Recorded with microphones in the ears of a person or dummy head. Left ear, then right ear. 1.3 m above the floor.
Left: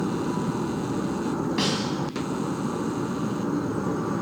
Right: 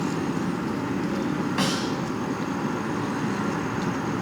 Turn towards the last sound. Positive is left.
turn(degrees=-10)  # may be behind; listen again after turning